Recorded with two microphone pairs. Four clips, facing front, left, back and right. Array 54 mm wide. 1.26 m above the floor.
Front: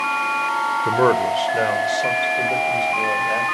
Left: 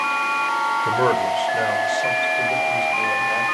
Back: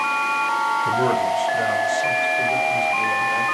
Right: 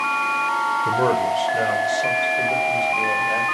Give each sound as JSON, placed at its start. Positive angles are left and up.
{"t": 0.8, "sound": "a man speaking", "azimuth_deg": 30, "distance_m": 0.7}